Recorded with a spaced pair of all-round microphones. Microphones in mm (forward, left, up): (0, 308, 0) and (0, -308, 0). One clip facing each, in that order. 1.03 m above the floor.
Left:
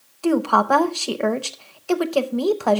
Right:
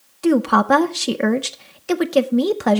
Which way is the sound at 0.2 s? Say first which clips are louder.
Right 3 dB; 45° right (ahead or behind).